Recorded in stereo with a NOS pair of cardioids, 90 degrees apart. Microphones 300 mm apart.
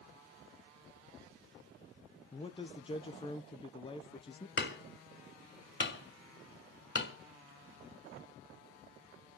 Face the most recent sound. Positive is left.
turn(degrees=40)